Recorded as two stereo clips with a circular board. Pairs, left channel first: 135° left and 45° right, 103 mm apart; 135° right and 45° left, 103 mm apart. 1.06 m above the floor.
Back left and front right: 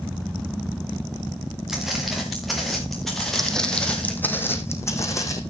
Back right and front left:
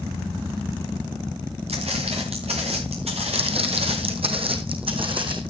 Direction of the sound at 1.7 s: 40° left.